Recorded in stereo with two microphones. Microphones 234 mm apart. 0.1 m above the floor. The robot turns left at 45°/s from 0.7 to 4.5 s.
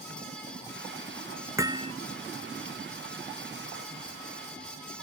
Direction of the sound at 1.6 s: 15° right (ahead or behind).